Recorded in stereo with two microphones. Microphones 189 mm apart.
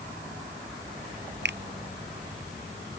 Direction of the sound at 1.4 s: 65° right (ahead or behind).